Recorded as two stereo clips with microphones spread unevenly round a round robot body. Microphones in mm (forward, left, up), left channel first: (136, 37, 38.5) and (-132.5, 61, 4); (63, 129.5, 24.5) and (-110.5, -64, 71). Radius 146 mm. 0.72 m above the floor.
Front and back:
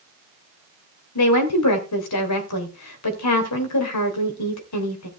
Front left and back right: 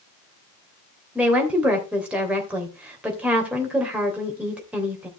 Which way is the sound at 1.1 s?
45° right.